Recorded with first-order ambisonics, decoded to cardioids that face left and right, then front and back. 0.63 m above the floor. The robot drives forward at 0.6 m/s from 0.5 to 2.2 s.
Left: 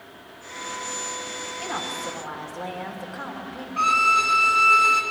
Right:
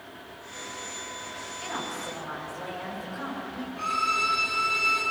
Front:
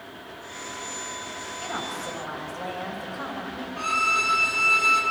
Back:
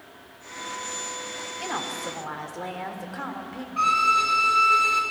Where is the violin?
115° left, 1.9 m.